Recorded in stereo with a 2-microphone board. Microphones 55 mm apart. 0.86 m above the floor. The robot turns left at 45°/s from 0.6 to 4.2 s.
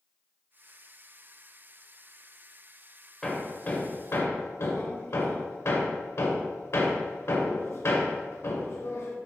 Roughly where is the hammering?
Centre.